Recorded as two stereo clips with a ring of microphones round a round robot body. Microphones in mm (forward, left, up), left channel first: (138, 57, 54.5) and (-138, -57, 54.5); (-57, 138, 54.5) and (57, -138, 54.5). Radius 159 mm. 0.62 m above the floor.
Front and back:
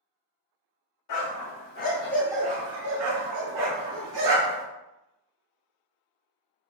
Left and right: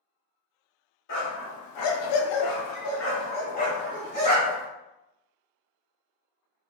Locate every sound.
1.1 s a dog barking: 60° left, 0.8 m; by 4.7 s 170° right, 1.5 m